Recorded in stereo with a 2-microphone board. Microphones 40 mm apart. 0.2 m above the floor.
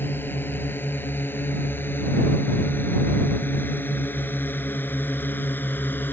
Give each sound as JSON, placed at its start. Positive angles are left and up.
{"t": 0.0, "sound": "a drone", "side_deg": 70}